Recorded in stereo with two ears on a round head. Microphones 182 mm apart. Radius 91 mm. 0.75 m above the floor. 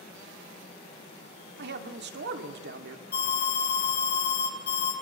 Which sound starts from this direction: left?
An alarm, at 3.1 s.